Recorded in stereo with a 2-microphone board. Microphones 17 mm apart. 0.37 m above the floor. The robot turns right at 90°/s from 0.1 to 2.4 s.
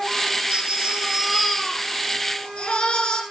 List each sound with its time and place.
0.5 s a baby crying: 85° right, 10 m; by 3.2 s 85° left, 10 m